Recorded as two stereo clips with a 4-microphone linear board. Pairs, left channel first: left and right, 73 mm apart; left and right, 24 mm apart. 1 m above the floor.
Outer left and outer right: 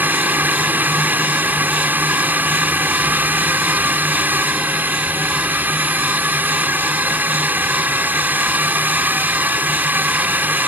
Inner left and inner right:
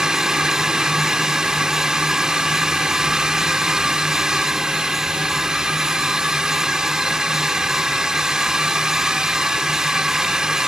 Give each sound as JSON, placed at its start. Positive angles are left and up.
{"t": 0.0, "sound": "a drone", "side_deg": -25}